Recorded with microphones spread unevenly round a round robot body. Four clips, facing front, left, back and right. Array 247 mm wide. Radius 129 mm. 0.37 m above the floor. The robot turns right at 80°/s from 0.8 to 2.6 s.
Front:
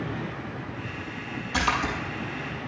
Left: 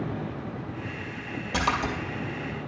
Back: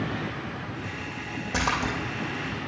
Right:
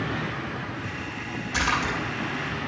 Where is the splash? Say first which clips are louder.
Even, front 1 dB; 140° left, 2.5 m; by 1.9 s 175° left, 2.5 m.